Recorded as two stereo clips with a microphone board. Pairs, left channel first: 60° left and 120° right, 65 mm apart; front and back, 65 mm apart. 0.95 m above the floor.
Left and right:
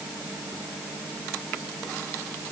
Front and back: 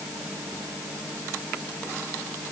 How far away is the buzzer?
I don't hear a buzzer.